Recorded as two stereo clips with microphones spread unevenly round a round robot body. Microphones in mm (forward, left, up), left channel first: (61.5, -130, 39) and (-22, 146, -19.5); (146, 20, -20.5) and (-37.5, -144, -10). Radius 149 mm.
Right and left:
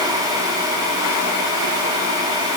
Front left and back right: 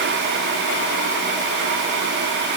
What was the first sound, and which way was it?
Only background noise.